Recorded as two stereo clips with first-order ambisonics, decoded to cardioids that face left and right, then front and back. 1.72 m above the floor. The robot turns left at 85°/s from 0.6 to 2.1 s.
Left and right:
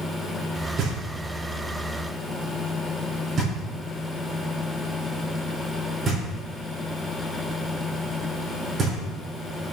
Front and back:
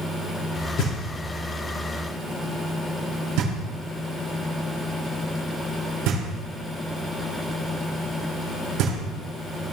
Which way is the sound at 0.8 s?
45° right.